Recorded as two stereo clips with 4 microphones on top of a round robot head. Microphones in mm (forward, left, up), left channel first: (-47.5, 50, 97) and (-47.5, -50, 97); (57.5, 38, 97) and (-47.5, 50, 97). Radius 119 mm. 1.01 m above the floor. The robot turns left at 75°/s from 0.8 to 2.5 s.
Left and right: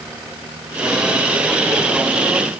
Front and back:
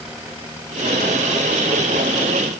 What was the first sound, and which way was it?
Only background noise.